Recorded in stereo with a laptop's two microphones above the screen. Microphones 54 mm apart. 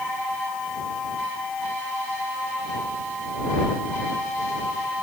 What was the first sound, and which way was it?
Only background noise.